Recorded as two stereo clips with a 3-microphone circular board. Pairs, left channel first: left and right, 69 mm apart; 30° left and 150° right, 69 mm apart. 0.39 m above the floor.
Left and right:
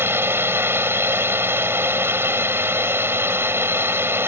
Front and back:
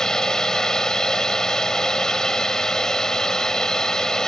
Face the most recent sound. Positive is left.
turn(degrees=-50)